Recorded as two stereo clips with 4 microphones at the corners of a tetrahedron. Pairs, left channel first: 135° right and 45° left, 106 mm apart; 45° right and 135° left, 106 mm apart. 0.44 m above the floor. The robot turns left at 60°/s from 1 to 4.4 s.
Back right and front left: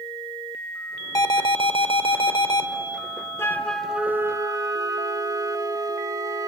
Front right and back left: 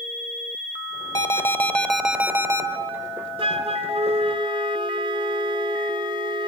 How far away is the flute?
About 1.0 m.